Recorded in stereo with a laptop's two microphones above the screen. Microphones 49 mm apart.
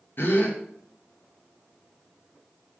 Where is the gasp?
50° left (ahead or behind), 0.9 m.